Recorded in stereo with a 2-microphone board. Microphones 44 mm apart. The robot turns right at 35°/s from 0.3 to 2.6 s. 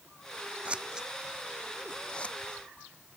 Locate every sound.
0.7 s scissors: 30° right (ahead or behind); by 2.4 s 30° left (ahead or behind)